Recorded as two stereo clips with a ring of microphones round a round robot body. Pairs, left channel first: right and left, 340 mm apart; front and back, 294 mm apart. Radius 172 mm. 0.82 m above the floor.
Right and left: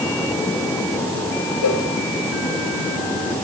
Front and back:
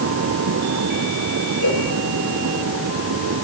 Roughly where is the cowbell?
Ahead right.